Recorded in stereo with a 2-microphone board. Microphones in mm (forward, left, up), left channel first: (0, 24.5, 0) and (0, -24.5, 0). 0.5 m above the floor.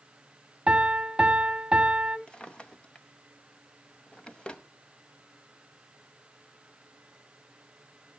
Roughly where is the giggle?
I don't hear a giggle.